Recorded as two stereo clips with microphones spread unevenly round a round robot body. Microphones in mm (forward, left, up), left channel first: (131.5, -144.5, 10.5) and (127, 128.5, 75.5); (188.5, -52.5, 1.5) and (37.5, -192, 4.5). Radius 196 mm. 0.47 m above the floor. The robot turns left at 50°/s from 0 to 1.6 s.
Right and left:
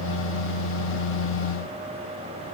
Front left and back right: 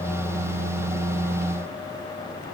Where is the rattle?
No rattle in this recording.